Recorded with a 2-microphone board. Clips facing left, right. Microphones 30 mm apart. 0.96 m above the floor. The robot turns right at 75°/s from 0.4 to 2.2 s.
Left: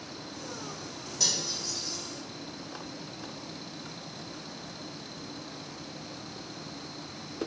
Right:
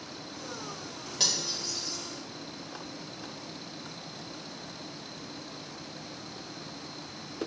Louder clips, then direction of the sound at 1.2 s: Right 1 dB; 45° right (ahead or behind).